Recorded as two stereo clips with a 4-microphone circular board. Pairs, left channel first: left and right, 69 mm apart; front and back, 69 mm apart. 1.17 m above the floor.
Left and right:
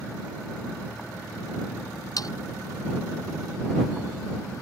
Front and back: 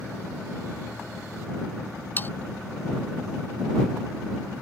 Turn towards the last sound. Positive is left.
turn(degrees=60)